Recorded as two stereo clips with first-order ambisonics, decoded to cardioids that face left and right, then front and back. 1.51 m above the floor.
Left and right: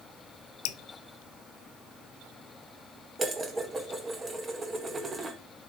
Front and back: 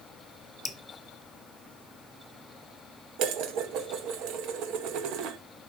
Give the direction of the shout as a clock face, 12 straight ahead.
I don't hear a shout.